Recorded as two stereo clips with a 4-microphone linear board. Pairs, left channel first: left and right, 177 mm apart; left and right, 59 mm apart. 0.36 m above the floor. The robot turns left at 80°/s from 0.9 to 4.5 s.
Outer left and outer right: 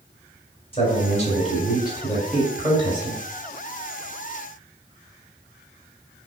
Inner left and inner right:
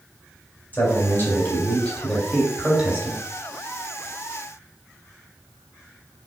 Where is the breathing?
No breathing in this recording.